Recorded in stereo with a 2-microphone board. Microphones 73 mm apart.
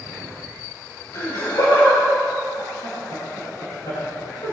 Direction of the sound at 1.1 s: 55° left (ahead or behind).